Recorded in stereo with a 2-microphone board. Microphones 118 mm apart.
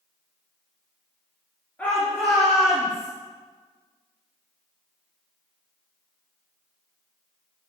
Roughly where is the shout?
Centre.